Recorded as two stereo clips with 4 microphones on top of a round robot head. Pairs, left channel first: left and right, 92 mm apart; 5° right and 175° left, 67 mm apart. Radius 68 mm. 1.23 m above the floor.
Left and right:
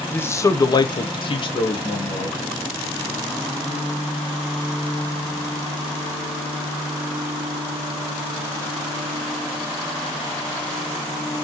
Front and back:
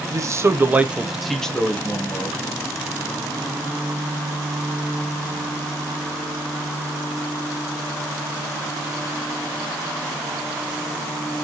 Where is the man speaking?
155° left, 0.9 m; by 2.4 s 55° left, 1.6 m.